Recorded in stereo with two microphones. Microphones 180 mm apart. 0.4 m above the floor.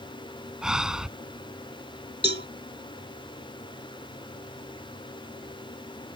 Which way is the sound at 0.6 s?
5° right (ahead or behind).